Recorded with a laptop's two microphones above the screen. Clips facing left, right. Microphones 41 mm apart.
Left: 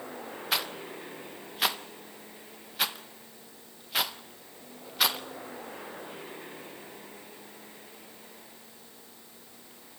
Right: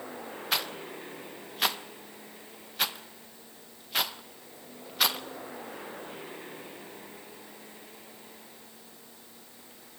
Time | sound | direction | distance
0.5 | a rattle | centre (ahead or behind) | 1.2 m